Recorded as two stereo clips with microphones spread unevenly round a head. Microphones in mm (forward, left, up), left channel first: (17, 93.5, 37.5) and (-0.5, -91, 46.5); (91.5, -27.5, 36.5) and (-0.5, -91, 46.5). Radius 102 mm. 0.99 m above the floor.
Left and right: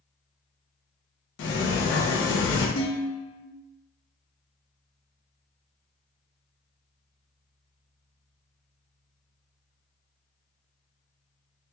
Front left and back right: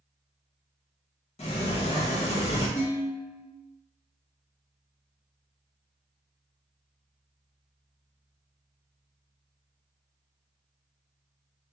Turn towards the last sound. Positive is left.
turn(degrees=70)